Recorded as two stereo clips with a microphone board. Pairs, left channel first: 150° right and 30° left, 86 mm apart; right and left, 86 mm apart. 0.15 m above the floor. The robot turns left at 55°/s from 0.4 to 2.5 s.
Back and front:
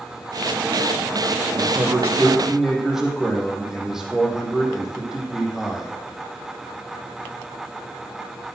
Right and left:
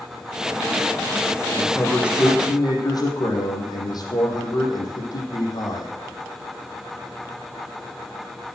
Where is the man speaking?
Straight ahead, 5 m; by 5.9 s 55° right, 5 m.